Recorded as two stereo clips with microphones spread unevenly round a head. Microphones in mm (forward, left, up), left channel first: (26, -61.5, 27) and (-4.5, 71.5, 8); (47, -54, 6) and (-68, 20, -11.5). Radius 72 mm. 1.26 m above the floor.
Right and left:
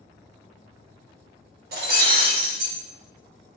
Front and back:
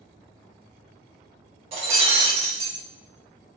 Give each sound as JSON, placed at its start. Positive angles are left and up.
{"t": 1.7, "sound": "breaking glass", "azimuth_deg": 95, "distance_m": 1.0}